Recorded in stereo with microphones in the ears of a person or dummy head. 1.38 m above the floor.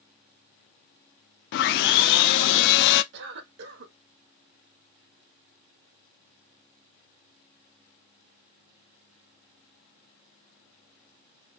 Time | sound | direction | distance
1.5 | sawing | 65° left (ahead or behind) | 0.6 m
3.1 | a cough | 75° right (ahead or behind) | 1.7 m